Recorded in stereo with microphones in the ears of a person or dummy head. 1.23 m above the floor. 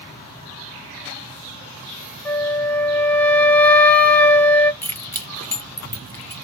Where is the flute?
10° left (ahead or behind), 0.5 m.